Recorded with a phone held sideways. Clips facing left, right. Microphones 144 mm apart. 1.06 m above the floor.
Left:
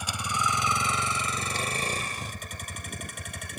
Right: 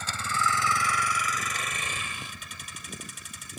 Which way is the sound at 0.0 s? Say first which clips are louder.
Right 1 dB; 10° left (ahead or behind).